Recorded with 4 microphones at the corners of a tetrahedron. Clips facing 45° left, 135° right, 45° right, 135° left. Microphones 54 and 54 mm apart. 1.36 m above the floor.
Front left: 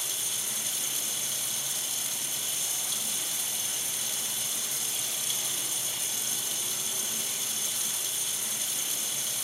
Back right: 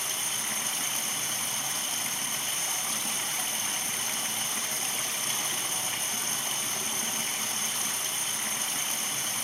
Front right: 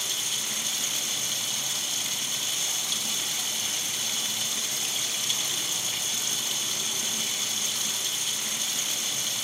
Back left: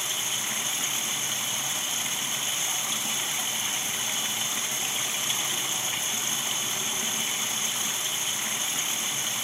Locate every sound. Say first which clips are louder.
0.0 s running water: back right 4 dB, back left 2 dB; 165° right, 1.9 m